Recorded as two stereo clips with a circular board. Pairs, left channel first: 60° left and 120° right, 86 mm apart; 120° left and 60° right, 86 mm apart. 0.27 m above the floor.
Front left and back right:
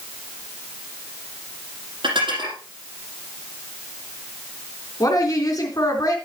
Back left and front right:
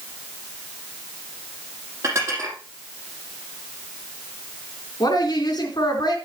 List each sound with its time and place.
2.0 s dishes clattering: 115° right, 5.5 m
5.0 s a woman speaking: 100° left, 3 m